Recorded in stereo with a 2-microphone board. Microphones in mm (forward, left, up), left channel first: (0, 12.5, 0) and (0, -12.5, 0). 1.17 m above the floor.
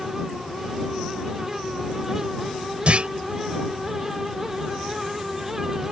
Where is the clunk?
50° right (ahead or behind).